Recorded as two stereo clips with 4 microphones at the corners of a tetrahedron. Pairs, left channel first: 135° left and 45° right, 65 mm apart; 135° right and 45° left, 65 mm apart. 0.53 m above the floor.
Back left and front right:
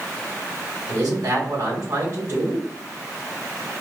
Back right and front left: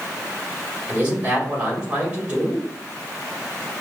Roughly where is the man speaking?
Ahead right.